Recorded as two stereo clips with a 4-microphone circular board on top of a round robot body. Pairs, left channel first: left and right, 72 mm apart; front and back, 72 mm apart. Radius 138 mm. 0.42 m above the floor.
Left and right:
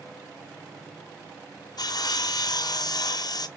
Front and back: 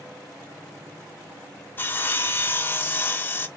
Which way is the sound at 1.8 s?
65° left.